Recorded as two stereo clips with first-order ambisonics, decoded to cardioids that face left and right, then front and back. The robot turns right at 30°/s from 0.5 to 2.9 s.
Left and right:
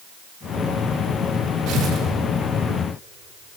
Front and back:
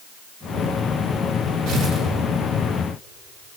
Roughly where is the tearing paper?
Behind right.